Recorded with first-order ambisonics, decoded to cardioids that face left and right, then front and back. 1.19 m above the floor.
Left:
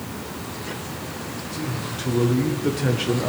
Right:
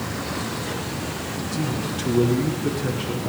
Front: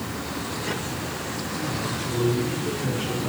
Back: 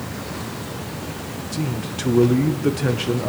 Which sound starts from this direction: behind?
A man speaking, at 1.5 s.